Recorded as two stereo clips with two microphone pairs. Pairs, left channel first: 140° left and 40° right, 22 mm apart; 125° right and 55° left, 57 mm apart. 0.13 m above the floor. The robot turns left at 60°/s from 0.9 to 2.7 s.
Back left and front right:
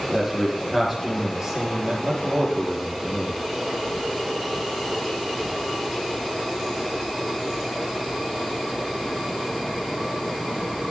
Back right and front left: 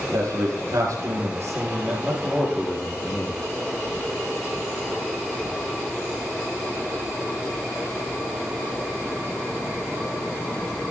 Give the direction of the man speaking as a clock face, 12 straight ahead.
11 o'clock.